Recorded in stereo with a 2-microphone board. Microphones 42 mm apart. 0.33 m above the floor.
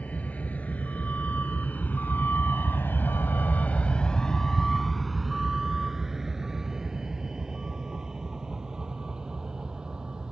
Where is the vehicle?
40° left (ahead or behind); by 10.3 s 20° right (ahead or behind).